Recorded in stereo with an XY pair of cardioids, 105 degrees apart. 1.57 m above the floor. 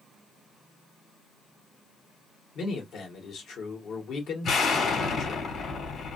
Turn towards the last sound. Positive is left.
turn(degrees=60)